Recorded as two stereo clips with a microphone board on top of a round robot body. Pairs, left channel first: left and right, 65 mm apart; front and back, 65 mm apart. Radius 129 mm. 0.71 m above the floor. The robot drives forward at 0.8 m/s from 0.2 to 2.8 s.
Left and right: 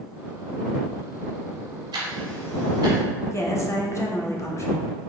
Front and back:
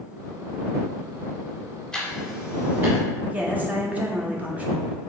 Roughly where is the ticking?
Right.